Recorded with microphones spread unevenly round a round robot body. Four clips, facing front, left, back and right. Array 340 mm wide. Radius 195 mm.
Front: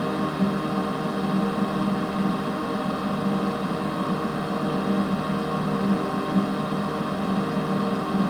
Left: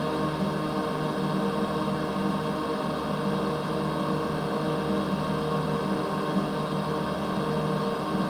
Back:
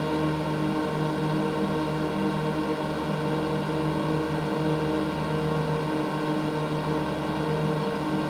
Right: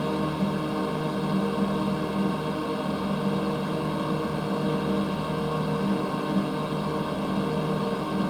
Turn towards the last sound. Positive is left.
turn(degrees=-175)